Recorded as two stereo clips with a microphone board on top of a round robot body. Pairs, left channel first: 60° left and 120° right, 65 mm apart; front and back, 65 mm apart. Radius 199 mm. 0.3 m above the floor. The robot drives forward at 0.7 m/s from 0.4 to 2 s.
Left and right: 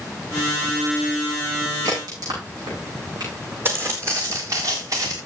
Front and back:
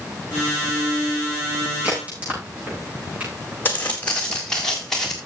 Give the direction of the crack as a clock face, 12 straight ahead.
4 o'clock.